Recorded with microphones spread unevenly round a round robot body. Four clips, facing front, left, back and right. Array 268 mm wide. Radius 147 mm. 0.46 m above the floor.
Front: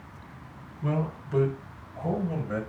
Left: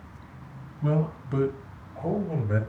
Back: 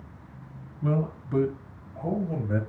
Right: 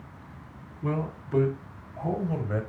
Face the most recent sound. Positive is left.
turn(degrees=145)